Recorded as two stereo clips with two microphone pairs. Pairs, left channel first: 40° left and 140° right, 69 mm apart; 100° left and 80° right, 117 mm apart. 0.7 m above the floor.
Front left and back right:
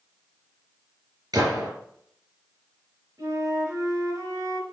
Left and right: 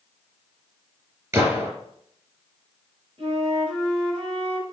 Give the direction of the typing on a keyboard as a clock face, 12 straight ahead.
No typing on a keyboard in this recording.